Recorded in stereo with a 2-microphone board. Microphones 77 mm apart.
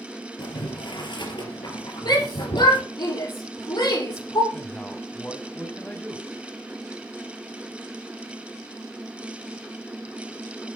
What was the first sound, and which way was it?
Boiling, 75° left (ahead or behind).